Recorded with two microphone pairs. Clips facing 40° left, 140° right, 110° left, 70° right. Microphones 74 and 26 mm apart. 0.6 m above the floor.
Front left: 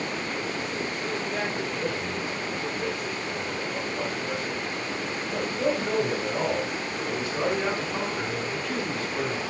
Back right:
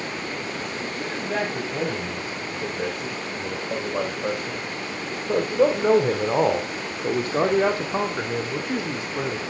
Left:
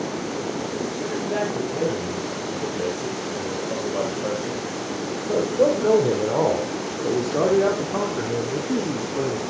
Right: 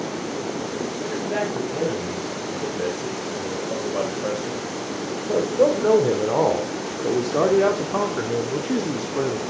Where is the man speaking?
155° right, 4 m; by 9.4 s 55° right, 1.3 m.